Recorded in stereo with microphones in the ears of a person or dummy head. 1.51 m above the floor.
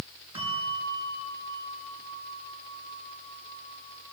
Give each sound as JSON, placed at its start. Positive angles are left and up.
{"t": 0.3, "sound": "a bell", "side_deg": -30, "distance_m": 9.0}